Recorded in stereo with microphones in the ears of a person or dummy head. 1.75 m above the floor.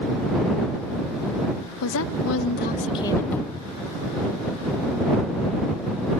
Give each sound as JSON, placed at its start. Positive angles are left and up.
{"t": 1.8, "sound": "a woman speaking", "side_deg": 70}
{"t": 3.3, "sound": "a cupboard door", "side_deg": 20}